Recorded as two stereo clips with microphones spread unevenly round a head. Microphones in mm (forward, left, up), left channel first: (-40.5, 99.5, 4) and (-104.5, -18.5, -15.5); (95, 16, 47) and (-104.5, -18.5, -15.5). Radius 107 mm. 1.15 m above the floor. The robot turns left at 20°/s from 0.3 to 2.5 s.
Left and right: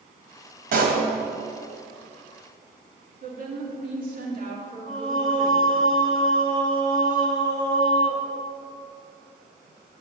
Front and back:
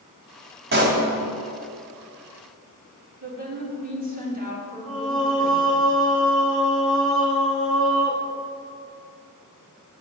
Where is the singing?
80° right, 1.4 m.